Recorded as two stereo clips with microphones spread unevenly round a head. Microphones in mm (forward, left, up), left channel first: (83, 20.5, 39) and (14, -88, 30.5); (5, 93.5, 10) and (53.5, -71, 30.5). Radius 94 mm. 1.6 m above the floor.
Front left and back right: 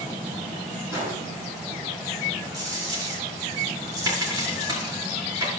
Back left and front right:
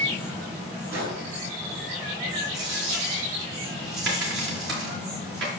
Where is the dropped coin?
60° right, 5.5 m.